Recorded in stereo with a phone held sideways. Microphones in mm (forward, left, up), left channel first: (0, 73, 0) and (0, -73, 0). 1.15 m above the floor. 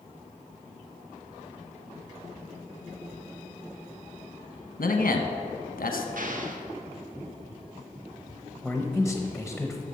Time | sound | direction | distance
4.8 | a man speaking | 80° left | 1.0 m
6.2 | an explosion | 70° right (ahead or behind) | 0.7 m
8.6 | a man speaking | centre (ahead or behind) | 0.7 m